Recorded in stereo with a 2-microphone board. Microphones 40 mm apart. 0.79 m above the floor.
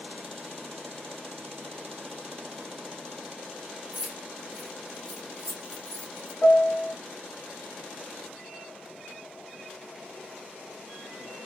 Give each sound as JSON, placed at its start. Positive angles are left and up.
{"t": 3.9, "sound": "keys jangling", "side_deg": -25, "distance_m": 1.0}
{"t": 6.4, "sound": "a piano", "side_deg": 30, "distance_m": 0.6}